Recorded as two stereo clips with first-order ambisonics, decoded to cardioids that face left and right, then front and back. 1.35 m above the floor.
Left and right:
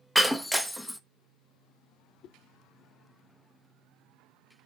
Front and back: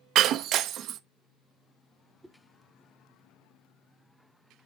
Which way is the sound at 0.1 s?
Straight behind.